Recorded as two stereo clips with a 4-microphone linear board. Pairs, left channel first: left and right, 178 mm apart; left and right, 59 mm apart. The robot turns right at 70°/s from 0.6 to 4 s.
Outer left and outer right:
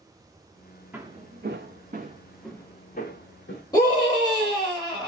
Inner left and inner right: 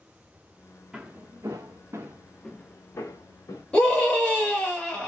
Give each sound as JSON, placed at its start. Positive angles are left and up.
{"t": 0.9, "sound": "footsteps", "side_deg": -10, "distance_m": 0.7}
{"t": 3.7, "sound": "a scream", "side_deg": 25, "distance_m": 1.8}